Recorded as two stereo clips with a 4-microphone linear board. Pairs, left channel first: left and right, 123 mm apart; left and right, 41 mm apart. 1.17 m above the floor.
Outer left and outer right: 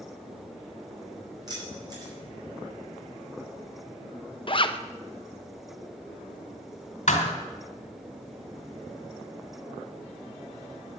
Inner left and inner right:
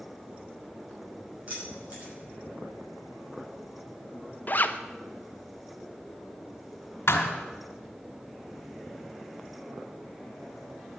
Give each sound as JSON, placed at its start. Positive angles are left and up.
{"t": 1.5, "sound": "keys jangling", "side_deg": -35, "distance_m": 6.0}
{"t": 4.5, "sound": "a zipper", "side_deg": 45, "distance_m": 0.7}
{"t": 7.1, "sound": "a thud", "side_deg": 80, "distance_m": 2.0}